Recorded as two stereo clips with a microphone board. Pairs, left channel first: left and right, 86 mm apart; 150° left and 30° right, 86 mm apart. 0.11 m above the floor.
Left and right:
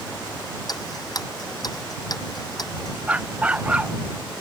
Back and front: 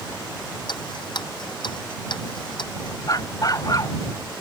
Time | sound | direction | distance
0.7 | ticking | 130° left | ?
3.1 | a dog barking | 165° right | ?